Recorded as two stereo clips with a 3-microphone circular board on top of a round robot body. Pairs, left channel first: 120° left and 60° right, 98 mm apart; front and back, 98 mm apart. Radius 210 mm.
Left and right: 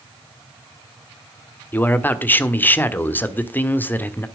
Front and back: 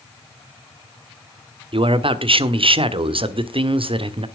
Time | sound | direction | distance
1.7 | a man speaking | 170° right | 1.6 m